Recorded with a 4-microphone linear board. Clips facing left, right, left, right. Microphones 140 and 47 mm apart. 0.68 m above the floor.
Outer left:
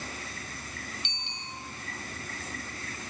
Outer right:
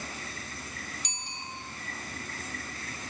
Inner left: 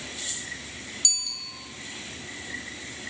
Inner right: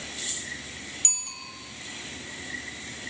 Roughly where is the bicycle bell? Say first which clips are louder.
Outer right 1 dB, inner left 3 dB; right.